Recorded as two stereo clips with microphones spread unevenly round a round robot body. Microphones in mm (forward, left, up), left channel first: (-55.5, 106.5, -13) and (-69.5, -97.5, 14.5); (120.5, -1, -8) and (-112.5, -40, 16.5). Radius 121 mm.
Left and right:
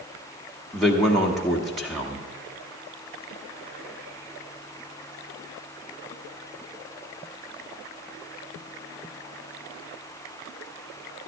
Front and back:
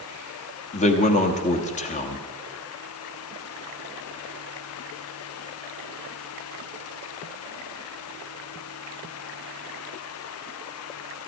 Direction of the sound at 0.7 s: 10° left.